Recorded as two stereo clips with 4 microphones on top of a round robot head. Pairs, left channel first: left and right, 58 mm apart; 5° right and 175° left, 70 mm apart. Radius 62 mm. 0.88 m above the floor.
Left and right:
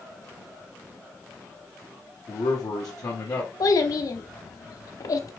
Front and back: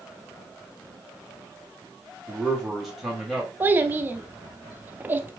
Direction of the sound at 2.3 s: 90° left.